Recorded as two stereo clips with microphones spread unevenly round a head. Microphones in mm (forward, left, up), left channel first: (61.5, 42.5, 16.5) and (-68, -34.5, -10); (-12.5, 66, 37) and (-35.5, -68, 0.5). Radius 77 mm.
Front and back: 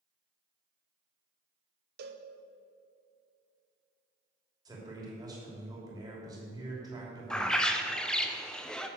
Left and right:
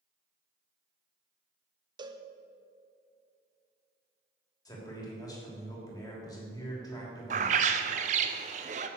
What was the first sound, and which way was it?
A cowbell, 150° right.